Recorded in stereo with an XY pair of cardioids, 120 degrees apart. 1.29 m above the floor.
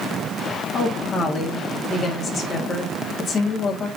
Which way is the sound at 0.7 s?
40° left.